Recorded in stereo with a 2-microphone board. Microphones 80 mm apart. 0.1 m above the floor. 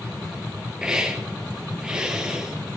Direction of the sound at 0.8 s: 10° right (ahead or behind).